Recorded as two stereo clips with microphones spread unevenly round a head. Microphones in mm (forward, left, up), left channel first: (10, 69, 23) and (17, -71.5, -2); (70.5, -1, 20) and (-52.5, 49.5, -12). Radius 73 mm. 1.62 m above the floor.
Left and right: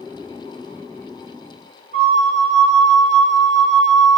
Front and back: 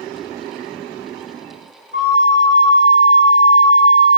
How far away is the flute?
About 5 m.